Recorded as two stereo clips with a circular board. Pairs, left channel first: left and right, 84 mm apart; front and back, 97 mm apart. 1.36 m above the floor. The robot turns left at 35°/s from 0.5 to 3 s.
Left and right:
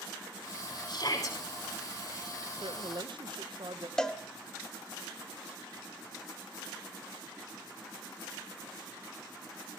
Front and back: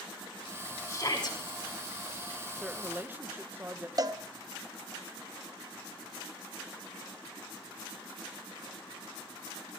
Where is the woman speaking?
95° right, 0.8 m; by 3.9 s 110° right, 0.8 m.